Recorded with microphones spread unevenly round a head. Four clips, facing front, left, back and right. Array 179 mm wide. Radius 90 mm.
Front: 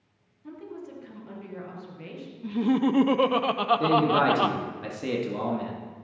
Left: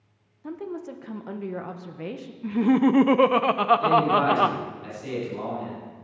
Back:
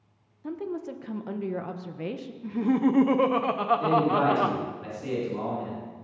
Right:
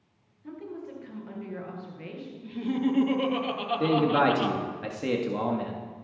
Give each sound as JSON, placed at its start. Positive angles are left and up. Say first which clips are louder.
{"t": 0.4, "sound": "a woman speaking", "louder": "left 5 dB, back 7 dB", "azimuth_deg": 150, "distance_m": 1.2}
{"t": 2.4, "sound": "laughter", "louder": "left 8 dB, even", "azimuth_deg": 80, "distance_m": 0.7}
{"t": 3.8, "sound": "a man speaking", "louder": "left 3 dB, front 1 dB", "azimuth_deg": -50, "distance_m": 1.8}